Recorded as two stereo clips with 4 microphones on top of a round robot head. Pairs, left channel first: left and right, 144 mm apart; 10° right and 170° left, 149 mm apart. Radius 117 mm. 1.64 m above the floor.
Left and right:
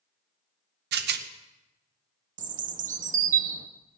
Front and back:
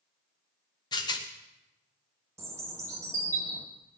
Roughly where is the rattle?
Right.